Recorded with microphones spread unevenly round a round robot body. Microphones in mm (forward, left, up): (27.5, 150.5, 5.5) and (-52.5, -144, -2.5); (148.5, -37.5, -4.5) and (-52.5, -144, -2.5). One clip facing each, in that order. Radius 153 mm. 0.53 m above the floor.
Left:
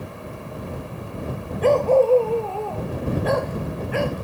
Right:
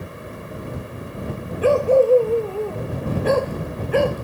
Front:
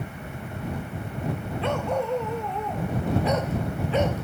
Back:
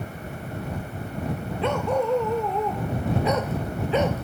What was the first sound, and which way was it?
A dog barking, 175° left.